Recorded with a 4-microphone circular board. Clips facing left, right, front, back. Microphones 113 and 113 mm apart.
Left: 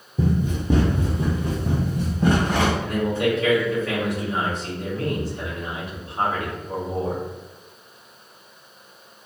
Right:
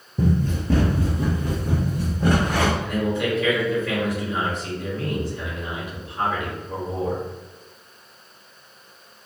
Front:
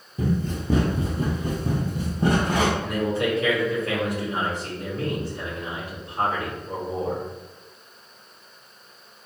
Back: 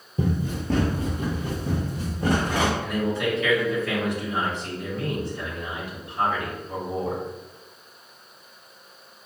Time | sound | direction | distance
0.2 | running footsteps | 175° left | 1.0 m
2.8 | a man speaking | 40° left | 1.9 m